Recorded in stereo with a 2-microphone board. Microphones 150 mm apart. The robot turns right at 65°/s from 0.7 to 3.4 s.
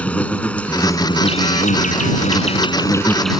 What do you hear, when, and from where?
0.0 s an insect: 10° left; by 3.4 s 175° right